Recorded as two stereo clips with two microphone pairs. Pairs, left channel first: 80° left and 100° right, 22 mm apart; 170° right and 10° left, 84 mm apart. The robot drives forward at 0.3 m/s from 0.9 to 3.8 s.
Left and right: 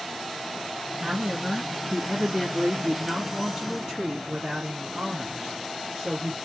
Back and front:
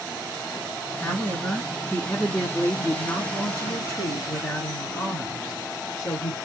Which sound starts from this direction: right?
A woman speaking, at 1.0 s.